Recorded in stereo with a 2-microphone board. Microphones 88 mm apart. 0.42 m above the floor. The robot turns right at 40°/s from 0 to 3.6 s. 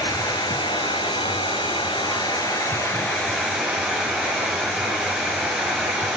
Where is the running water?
45° left, 6 m; by 6.2 s 170° right, 6 m.